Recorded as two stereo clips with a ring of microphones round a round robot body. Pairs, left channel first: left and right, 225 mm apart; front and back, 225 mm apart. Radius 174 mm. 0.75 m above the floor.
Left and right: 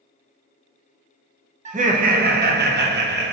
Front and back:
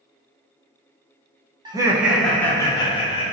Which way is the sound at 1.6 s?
125° right.